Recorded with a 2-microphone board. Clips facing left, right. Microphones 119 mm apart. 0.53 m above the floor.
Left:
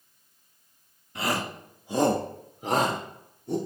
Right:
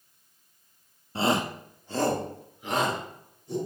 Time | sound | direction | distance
1.1 | a shout | 30° right (ahead or behind) | 0.8 m